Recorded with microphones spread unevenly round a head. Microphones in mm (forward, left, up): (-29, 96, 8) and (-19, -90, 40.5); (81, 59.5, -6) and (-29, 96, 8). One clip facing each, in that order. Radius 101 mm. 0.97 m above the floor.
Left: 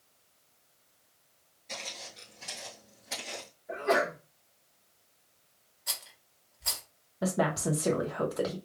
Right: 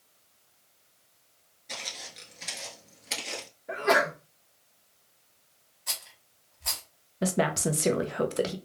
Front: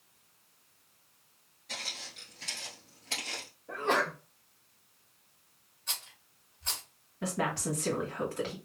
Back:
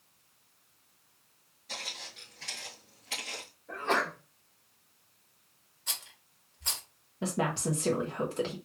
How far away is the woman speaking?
About 0.6 m.